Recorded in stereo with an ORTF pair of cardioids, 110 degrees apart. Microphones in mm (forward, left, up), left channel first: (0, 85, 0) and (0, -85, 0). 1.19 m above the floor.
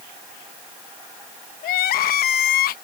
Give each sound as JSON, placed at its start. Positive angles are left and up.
{"t": 1.6, "sound": "crying", "azimuth_deg": 60}